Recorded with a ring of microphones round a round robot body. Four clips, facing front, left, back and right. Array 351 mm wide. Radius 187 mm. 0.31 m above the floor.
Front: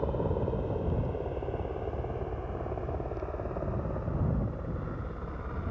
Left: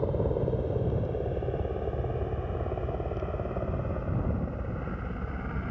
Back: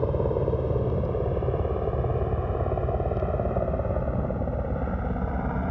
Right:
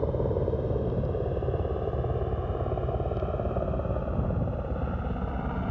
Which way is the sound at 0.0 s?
175° right.